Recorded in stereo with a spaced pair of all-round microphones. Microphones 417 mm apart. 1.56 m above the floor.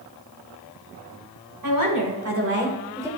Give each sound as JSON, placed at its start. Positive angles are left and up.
{"t": 1.6, "sound": "a woman speaking", "side_deg": -55, "distance_m": 1.9}